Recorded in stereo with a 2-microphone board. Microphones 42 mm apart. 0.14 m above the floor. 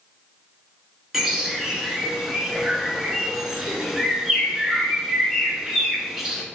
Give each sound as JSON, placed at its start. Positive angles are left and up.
{"t": 1.1, "sound": "a bird", "side_deg": -10, "distance_m": 0.7}